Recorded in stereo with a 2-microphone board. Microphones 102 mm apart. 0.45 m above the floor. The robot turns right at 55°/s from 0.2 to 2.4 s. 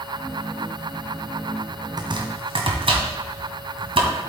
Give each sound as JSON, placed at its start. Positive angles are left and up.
{"t": 2.0, "sound": "chopping", "side_deg": -40, "distance_m": 1.8}